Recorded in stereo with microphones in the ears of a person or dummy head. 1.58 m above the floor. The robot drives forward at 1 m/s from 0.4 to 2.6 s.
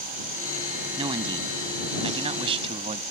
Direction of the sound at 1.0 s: 30° right (ahead or behind).